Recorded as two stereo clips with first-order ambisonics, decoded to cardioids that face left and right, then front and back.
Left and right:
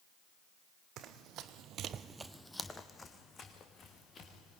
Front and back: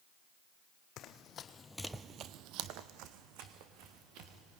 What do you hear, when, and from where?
1.0 s running footsteps: 45° right, 1.8 m; by 4.6 s 155° left, 4 m